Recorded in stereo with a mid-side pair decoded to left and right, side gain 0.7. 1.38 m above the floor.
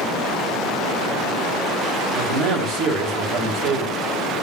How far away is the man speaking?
About 1.4 m.